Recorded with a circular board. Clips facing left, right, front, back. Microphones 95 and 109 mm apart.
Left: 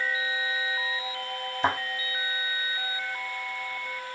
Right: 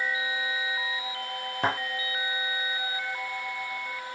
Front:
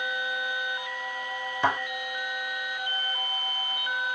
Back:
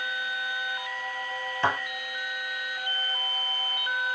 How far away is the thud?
About 1.4 m.